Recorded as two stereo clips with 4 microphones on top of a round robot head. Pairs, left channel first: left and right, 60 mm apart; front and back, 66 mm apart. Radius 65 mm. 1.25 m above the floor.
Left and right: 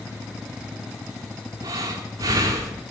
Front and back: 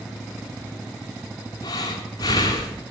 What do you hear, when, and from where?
1.6 s breathing: 45° right, 2.5 m